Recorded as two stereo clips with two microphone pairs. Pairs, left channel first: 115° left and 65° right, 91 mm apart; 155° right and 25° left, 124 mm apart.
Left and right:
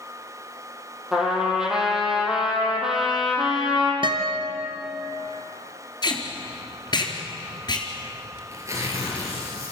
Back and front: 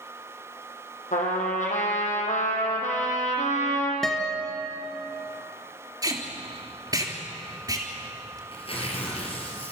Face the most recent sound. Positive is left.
turn(degrees=-115)